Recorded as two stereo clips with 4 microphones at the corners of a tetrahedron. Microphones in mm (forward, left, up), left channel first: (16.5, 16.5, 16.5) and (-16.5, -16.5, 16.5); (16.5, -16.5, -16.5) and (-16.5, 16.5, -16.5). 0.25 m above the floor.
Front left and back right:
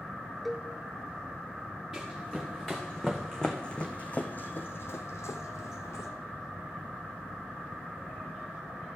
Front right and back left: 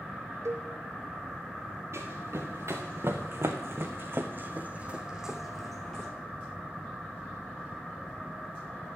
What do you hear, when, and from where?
0.5 s a cowbell: 135° left, 0.6 m
1.9 s running footsteps: 135° left, 2 m; by 6.1 s 30° left, 1.2 m